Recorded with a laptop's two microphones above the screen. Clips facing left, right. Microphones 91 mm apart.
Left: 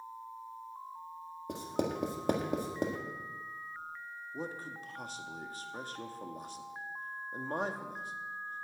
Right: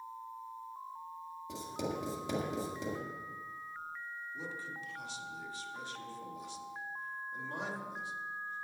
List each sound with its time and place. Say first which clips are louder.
1.5 s writing: left 4 dB; 50° left (ahead or behind), 1.5 m
4.3 s a man speaking: left 6 dB; 45° left (ahead or behind), 1.7 m